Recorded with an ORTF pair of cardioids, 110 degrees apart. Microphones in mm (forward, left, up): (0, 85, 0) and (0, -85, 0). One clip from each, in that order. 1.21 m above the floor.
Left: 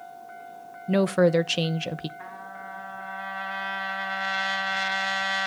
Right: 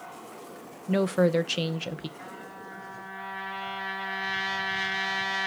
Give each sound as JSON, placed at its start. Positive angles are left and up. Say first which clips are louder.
{"t": 0.9, "sound": "a woman speaking", "louder": "left 3 dB", "azimuth_deg": 15, "distance_m": 0.7}
{"t": 2.2, "sound": "a trumpet", "louder": "left 3 dB", "azimuth_deg": 30, "distance_m": 10.0}